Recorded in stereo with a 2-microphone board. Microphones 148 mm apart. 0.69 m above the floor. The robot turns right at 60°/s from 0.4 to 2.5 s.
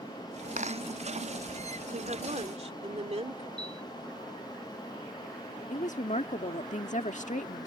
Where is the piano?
10° left (ahead or behind).